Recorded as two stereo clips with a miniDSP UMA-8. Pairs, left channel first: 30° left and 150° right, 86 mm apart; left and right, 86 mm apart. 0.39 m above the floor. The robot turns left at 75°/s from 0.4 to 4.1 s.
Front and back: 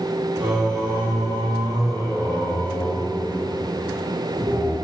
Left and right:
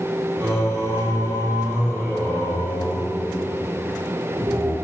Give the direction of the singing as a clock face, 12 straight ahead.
7 o'clock.